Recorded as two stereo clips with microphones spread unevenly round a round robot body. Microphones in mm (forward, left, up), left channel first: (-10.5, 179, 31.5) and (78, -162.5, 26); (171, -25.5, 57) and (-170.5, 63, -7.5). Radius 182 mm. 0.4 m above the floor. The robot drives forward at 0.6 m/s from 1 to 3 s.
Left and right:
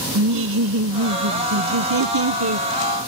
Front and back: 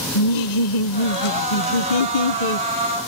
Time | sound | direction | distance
0.1 | laughter | 35° right | ?